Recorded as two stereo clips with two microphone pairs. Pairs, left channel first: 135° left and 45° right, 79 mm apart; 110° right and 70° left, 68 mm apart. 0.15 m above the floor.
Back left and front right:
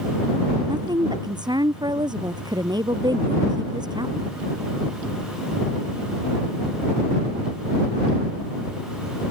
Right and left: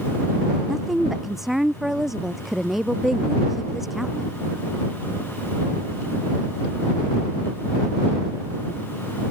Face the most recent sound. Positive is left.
turn(degrees=-15)